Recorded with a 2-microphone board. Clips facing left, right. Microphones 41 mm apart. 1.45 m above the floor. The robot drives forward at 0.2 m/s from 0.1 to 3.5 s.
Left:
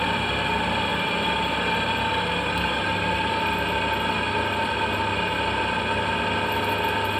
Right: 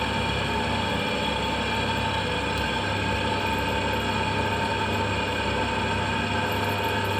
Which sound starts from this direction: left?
An engine running, at 0.0 s.